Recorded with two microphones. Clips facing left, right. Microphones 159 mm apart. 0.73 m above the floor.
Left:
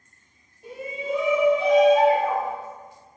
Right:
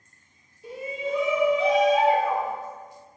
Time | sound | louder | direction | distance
0.6 | a shout | even | 55° left (ahead or behind) | 1.6 m